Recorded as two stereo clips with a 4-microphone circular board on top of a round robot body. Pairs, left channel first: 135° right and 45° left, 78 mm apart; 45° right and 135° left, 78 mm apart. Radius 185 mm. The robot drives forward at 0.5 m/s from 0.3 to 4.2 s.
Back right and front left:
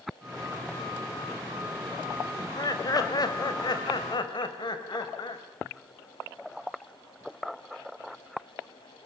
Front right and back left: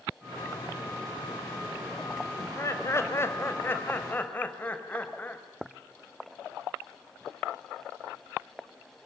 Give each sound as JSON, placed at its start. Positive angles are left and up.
{"t": 2.4, "sound": "laughter", "azimuth_deg": -95, "distance_m": 2.5}